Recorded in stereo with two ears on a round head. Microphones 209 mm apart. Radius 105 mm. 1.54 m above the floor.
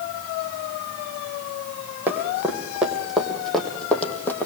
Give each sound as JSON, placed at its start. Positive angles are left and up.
{"t": 2.1, "sound": "running footsteps", "side_deg": -10, "distance_m": 4.5}